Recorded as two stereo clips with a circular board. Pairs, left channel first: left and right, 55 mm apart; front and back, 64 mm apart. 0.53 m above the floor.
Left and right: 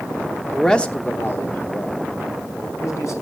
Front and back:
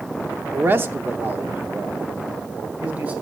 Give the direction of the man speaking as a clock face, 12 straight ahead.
6 o'clock.